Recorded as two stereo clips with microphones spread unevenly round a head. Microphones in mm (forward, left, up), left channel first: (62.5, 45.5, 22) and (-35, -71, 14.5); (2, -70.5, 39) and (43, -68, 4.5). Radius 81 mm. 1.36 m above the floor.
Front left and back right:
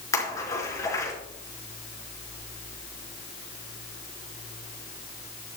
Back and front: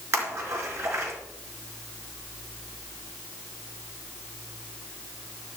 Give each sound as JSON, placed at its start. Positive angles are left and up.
{"t": 0.1, "sound": "a splash", "azimuth_deg": -15, "distance_m": 4.5}